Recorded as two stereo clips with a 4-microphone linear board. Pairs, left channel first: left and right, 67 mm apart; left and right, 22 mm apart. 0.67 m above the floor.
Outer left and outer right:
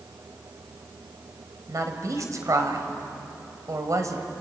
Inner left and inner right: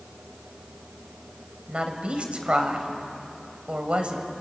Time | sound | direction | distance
1.7 | a woman speaking | 55° right (ahead or behind) | 3 m